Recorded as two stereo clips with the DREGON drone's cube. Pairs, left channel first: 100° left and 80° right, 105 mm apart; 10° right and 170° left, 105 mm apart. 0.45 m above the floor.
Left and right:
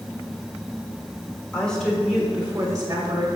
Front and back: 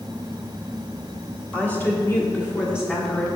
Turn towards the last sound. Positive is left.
turn(degrees=-75)